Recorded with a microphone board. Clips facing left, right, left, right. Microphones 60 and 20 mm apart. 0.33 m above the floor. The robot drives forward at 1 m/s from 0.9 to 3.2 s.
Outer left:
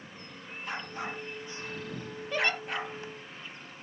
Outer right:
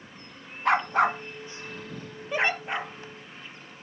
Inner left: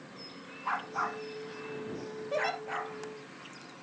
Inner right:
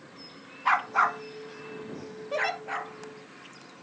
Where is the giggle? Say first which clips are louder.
Outer right 3 dB, inner right 3 dB; 15° right (ahead or behind), 1.8 m.